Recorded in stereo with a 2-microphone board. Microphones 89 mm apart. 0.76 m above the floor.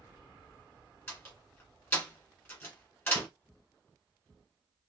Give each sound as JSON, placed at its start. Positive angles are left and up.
{"t": 1.1, "sound": "a door slam", "side_deg": 25, "distance_m": 2.0}